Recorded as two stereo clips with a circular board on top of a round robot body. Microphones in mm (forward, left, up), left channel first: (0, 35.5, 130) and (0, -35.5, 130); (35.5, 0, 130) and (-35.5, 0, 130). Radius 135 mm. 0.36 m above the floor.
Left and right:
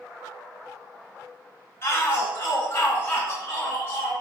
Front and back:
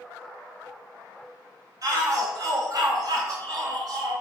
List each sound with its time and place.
1.8 s a shout: 145° left, 2.5 m